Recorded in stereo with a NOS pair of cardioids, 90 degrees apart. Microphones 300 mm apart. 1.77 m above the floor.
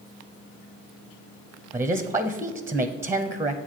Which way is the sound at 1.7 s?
10° right.